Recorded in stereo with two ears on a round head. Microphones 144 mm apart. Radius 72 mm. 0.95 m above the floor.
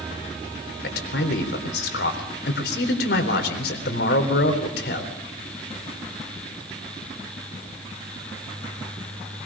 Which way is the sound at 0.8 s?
75° left (ahead or behind).